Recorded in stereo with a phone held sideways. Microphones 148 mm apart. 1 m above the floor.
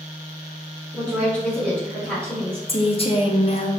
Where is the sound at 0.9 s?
5° left (ahead or behind), 1.9 m.